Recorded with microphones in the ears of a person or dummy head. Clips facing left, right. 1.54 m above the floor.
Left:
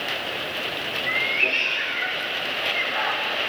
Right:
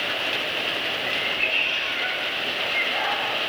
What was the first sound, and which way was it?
A cat meowing, 40° left (ahead or behind).